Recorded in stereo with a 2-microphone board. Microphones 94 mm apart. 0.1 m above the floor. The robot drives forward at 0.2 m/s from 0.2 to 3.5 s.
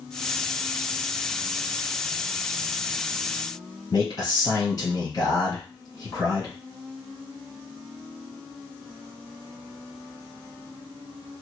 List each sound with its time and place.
3.9 s a man speaking: 40° left (ahead or behind), 1.8 m